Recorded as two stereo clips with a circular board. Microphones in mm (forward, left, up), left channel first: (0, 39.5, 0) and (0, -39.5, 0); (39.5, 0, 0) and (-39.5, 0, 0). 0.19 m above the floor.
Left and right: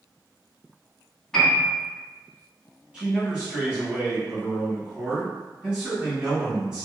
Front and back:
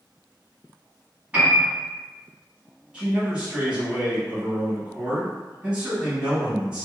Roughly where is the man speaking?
Behind right.